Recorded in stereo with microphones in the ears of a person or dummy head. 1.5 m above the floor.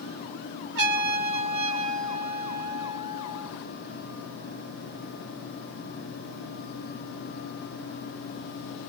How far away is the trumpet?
About 3.5 m.